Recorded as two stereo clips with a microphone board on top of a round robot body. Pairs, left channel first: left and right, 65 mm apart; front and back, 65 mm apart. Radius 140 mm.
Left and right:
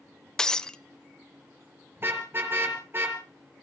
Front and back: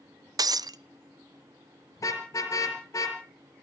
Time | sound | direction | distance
0.4 | breaking glass | 170° left | 0.8 m
2.0 | a car horn | 35° right | 5 m